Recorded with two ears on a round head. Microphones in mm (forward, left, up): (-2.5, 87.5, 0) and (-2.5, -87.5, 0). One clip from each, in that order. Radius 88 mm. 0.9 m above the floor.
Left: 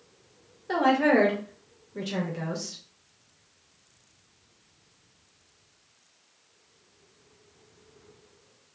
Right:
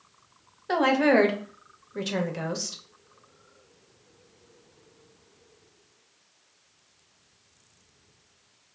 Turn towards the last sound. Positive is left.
turn(degrees=-25)  # may be behind; listen again after turning